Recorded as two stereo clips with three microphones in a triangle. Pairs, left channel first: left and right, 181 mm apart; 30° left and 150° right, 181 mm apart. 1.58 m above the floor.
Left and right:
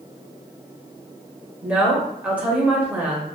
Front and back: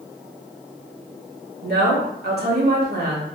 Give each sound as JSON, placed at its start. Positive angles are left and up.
{"t": 1.6, "sound": "a woman speaking", "azimuth_deg": -170, "distance_m": 0.9}